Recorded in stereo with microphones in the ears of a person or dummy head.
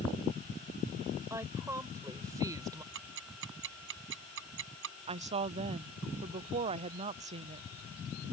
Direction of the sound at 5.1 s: 30° right (ahead or behind).